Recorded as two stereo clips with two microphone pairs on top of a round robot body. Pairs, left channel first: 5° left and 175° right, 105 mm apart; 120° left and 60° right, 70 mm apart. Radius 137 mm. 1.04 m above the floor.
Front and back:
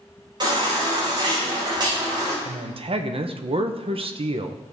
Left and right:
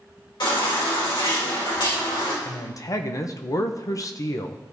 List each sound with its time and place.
0.4 s a baby crying: 135° left, 4 m
2.5 s a man speaking: 155° left, 1.0 m